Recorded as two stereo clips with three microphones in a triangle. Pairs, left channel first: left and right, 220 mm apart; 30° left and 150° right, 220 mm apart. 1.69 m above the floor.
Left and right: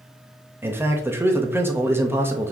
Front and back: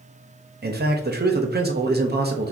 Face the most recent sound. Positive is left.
turn(degrees=-170)